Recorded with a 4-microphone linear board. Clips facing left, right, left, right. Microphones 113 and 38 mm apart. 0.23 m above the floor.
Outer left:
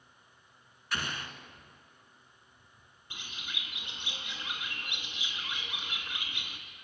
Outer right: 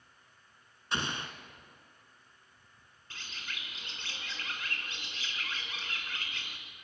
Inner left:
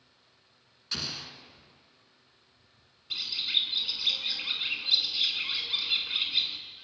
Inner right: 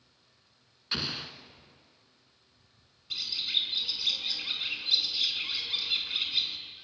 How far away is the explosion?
About 1.3 m.